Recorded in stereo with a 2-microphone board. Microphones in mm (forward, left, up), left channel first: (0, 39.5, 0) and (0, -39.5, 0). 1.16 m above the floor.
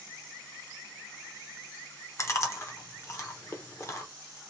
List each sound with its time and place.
2.2 s chewing: 35° left (ahead or behind), 0.7 m